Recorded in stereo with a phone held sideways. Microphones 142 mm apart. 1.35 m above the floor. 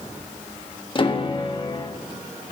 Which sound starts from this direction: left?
A piano, at 0.9 s.